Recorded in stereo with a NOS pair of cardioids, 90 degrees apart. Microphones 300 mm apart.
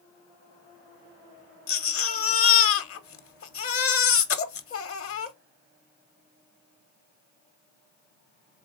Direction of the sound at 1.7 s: 50° left.